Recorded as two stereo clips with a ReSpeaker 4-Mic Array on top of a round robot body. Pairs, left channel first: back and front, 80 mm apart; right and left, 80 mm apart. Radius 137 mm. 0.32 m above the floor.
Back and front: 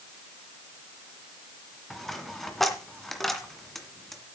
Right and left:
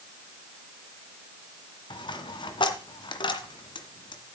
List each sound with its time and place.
1.9 s a dropped coin: 90° right, 1.9 m